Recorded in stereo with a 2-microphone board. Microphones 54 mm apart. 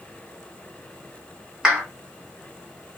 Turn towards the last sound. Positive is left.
turn(degrees=-15)  # may be behind; listen again after turning